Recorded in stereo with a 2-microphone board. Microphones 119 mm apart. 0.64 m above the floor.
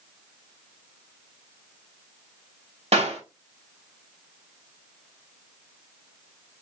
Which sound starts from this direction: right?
A clap, at 2.9 s.